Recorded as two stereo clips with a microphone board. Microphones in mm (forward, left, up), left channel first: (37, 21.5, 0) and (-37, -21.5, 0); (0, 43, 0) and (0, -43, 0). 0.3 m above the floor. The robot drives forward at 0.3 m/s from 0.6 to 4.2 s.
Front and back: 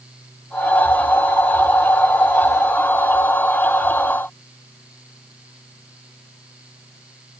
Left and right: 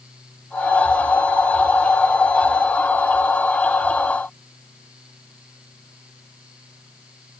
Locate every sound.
Only background noise.